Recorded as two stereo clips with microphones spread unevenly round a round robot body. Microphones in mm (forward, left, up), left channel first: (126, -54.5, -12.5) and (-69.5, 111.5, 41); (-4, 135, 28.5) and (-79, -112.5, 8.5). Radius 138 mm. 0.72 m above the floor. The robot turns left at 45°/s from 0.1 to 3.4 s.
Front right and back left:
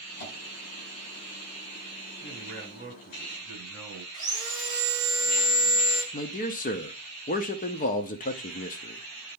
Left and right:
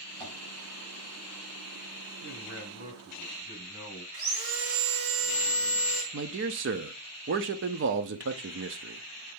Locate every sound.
0.2 s tapping: 15° right, 5 m; by 0.3 s 25° right, 5 m
2.2 s a man speaking: 120° right, 4 m; by 4.0 s 175° right, 4 m
4.1 s sawing: 145° right, 1.8 m
6.1 s a man speaking: 80° right, 0.7 m